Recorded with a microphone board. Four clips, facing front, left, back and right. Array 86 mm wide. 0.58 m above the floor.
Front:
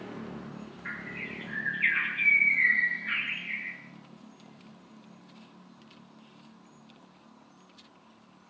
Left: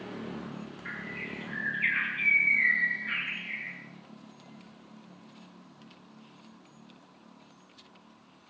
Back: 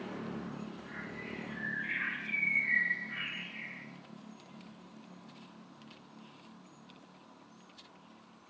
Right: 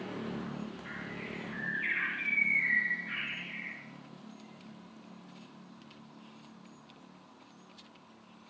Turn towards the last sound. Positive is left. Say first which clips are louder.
# left 2 dB, front 4 dB
turn(degrees=25)